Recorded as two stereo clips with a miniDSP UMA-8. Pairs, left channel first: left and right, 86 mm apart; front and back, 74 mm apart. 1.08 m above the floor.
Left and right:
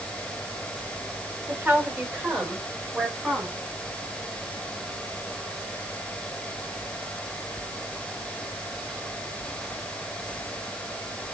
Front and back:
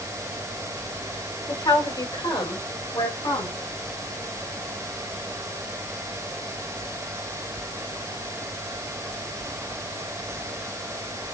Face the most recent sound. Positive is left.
turn(degrees=-5)